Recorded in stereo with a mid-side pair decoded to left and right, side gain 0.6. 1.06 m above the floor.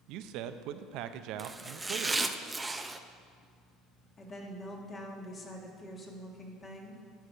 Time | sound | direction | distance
0.1 | a man speaking | 70° right | 0.6 m
1.4 | chopping | 15° right | 0.6 m
4.2 | a woman speaking | 30° left | 2.0 m